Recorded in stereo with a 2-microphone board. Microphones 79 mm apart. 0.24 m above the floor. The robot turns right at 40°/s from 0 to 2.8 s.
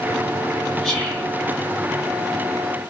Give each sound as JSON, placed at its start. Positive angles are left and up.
{"t": 0.8, "sound": "whispering", "side_deg": 5, "distance_m": 1.1}